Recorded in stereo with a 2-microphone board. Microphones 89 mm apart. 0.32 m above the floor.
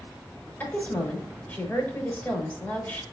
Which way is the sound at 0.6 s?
20° left (ahead or behind).